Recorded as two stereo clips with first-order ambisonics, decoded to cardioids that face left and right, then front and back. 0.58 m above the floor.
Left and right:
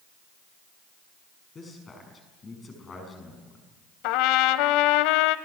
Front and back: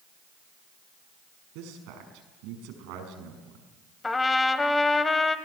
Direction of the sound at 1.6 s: 160° left.